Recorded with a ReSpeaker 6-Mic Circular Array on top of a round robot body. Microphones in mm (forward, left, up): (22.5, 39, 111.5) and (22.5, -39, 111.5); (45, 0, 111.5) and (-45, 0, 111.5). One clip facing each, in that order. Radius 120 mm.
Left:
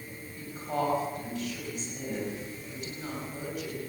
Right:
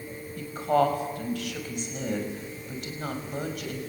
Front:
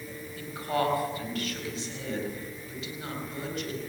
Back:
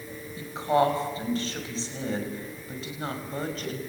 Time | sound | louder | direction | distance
0.4 | a woman speaking | right 8 dB, back 6 dB | 110° right | 6 m